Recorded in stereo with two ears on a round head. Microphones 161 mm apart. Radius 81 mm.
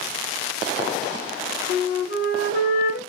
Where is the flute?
60° left (ahead or behind), 0.9 m.